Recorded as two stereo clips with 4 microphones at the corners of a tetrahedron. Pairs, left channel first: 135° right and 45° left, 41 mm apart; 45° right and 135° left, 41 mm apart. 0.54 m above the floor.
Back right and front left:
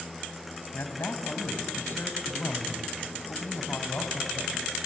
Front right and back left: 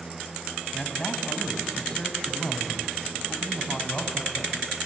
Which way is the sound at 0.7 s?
120° right.